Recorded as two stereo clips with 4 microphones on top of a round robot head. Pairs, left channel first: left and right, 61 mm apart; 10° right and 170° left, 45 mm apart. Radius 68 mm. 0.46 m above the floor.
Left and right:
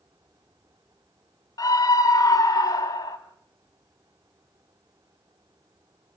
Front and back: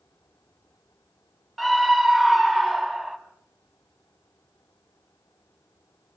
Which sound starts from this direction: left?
A scream, at 1.6 s.